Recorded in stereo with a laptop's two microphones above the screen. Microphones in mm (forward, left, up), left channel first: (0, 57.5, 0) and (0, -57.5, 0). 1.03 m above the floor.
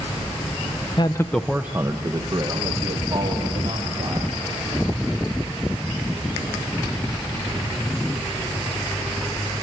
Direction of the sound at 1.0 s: 40° left (ahead or behind).